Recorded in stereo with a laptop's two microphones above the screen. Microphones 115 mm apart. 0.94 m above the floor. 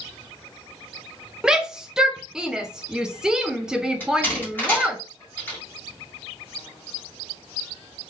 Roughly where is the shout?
Centre.